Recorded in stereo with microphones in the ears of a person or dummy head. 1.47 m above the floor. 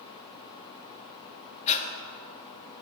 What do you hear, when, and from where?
1.7 s breathing: 35° left (ahead or behind), 0.5 m